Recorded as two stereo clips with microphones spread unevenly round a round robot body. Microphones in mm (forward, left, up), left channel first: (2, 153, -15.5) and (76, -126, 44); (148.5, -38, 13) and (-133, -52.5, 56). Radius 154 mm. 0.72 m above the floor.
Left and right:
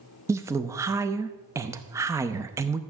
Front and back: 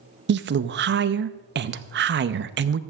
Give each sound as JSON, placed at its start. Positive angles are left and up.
{"t": 0.3, "sound": "a woman speaking", "azimuth_deg": -170, "distance_m": 0.5}